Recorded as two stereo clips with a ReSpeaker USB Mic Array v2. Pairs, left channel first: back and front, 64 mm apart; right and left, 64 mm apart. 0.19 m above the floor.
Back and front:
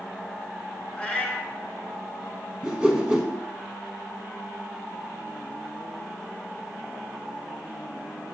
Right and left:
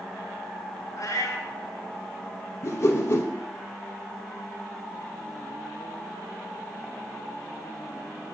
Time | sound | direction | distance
1.0 | a cat meowing | 110° right | 0.9 m
2.6 | a whoosh | 75° right | 0.6 m